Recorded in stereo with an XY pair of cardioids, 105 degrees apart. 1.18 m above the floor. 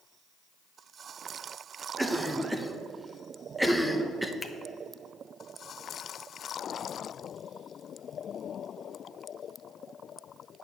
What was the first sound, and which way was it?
A cough, 10° right.